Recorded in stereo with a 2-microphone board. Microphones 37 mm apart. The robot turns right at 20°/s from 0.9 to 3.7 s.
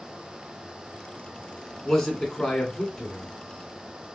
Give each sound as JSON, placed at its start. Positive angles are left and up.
{"t": 1.9, "sound": "a man speaking", "side_deg": 10, "distance_m": 1.4}